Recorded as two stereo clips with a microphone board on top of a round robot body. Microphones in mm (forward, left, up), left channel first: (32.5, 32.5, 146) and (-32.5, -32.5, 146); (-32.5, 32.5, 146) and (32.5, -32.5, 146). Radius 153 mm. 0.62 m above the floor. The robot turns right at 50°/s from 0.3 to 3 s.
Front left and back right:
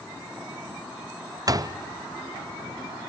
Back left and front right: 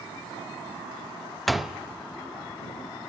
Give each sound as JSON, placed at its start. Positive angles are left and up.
{"t": 1.5, "sound": "a door slam", "azimuth_deg": -135, "distance_m": 0.6}